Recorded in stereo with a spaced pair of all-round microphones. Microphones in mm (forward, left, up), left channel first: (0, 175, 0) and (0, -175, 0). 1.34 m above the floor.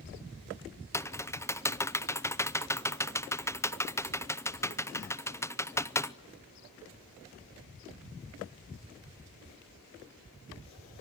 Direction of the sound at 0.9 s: 10° left (ahead or behind).